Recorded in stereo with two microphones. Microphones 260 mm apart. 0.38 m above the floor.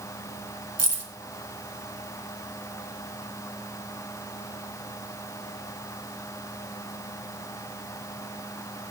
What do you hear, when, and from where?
0.8 s keys jangling: 70° right (ahead or behind), 1.5 m